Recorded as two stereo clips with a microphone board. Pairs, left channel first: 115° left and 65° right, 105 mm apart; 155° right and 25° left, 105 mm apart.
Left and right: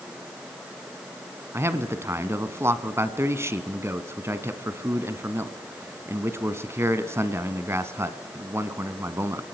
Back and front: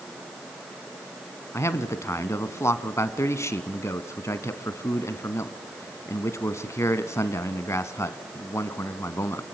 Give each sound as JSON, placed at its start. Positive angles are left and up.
{"t": 1.5, "sound": "a man speaking", "azimuth_deg": -115, "distance_m": 1.3}